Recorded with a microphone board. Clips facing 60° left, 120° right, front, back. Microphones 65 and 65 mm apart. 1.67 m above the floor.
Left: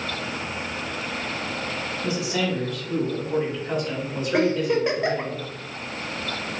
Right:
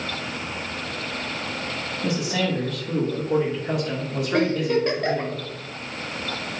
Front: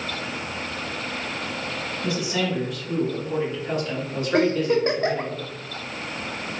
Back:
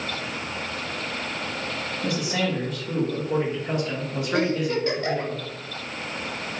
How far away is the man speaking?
About 1.4 m.